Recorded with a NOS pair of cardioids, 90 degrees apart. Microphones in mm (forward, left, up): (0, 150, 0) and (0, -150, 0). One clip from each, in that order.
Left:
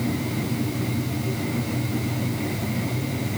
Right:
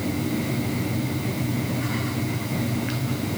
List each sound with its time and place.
Only background noise.